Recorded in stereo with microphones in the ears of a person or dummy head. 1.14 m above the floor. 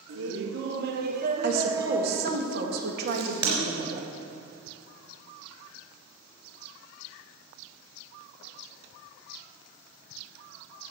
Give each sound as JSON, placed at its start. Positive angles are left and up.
{"t": 0.1, "sound": "laughter", "side_deg": -75, "distance_m": 1.1}
{"t": 1.4, "sound": "a woman speaking", "side_deg": -55, "distance_m": 1.8}
{"t": 3.1, "sound": "a crack", "side_deg": -25, "distance_m": 3.5}